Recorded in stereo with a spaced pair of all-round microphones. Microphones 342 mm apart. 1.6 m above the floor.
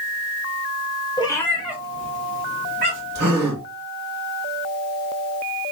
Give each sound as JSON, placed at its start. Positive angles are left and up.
{"t": 1.2, "sound": "a cat meowing", "side_deg": 15, "distance_m": 1.0}
{"t": 3.1, "sound": "a gasp", "side_deg": -70, "distance_m": 1.6}